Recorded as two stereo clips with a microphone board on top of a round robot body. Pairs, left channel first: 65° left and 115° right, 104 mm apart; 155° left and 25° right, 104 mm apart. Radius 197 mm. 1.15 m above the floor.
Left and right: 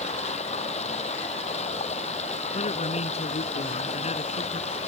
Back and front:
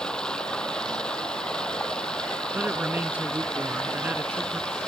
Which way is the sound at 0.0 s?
75° left.